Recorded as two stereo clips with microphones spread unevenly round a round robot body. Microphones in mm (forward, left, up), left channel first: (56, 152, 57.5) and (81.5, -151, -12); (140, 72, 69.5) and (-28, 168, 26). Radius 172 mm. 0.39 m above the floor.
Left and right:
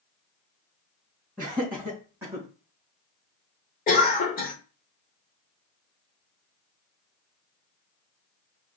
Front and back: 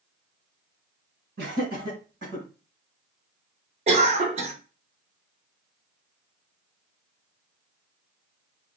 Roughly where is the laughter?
Behind.